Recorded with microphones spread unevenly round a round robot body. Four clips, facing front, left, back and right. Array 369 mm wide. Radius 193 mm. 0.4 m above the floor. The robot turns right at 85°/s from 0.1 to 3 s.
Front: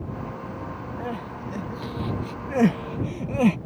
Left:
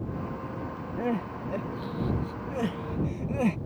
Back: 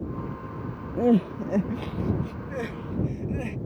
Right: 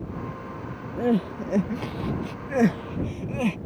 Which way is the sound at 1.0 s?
175° right.